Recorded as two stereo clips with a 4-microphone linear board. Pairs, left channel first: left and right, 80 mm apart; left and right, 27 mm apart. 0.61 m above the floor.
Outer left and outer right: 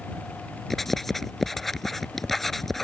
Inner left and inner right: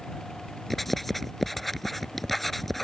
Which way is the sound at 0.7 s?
5° left (ahead or behind).